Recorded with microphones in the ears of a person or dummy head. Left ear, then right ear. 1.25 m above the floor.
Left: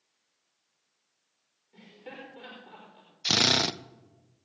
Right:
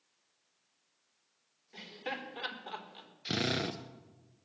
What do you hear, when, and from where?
1.7 s laughter: 55° right (ahead or behind), 4 m
3.2 s a drill: 45° left (ahead or behind), 0.6 m